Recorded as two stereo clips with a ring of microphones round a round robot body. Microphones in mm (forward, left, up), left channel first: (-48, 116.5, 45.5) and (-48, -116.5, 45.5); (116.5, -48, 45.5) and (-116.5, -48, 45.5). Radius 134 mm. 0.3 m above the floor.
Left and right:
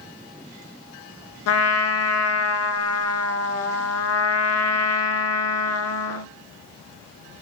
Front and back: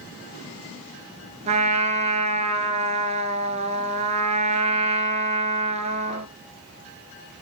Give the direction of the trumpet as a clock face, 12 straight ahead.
8 o'clock.